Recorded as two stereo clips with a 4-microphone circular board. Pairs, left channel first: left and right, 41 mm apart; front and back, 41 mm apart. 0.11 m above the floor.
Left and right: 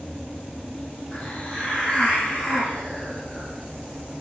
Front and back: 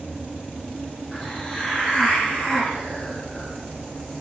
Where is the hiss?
65° left, 1.2 m.